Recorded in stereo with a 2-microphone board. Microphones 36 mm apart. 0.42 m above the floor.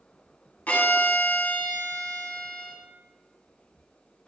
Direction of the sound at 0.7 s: 45° left (ahead or behind).